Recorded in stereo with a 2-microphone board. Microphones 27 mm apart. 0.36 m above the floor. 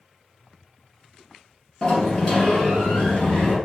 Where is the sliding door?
35° left (ahead or behind), 2.5 m.